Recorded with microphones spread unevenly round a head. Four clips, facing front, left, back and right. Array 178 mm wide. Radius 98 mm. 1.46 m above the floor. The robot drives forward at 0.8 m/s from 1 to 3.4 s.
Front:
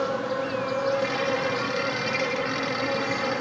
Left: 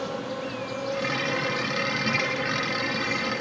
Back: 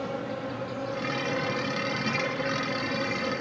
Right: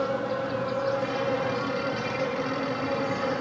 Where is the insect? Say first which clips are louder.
Right 4 dB, front 6 dB; 10° right, 6 m; by 3.4 s 15° right, 4.5 m.